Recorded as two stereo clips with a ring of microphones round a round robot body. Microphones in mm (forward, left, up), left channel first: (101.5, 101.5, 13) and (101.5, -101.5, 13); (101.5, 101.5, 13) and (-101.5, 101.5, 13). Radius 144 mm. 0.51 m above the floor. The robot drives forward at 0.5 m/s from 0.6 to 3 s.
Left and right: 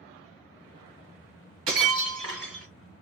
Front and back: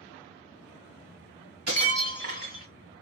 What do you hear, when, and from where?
1.7 s breaking glass: 125° right, 1.5 m; by 2.7 s 140° right, 1.9 m